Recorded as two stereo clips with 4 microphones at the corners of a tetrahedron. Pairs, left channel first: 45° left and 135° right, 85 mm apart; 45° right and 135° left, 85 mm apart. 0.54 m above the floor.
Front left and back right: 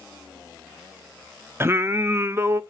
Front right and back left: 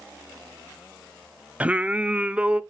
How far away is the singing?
About 0.6 m.